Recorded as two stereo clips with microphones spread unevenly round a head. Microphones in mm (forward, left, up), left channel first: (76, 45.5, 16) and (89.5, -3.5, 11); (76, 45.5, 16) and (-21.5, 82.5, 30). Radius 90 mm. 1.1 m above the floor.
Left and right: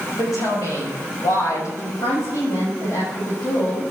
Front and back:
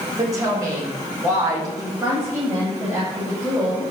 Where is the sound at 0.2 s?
100° left, 6 m; by 1.9 s 105° left, 8 m.